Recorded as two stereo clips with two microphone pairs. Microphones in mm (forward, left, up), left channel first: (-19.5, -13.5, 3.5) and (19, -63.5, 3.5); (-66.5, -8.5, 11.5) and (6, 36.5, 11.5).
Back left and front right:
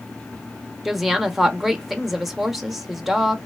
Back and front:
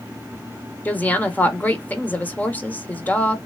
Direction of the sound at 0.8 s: 130° right.